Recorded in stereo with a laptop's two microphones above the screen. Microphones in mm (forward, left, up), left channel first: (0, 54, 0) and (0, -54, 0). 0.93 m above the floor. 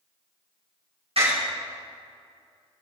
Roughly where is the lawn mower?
I don't hear a lawn mower.